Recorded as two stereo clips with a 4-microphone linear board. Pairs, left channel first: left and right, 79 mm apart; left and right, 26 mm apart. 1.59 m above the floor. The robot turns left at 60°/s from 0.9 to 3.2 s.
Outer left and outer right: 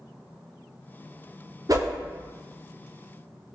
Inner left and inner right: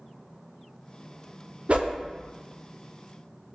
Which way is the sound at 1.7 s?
45° right (ahead or behind).